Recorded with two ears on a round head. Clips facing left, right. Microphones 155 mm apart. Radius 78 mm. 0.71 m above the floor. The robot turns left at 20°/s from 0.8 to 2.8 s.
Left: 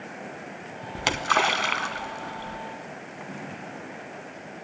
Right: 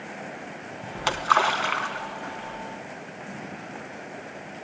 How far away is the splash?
About 0.9 m.